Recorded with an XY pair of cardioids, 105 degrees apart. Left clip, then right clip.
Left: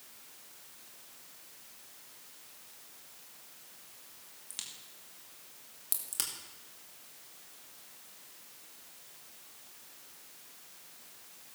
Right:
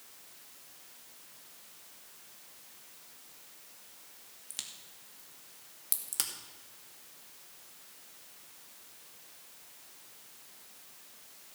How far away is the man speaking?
I don't hear a man speaking.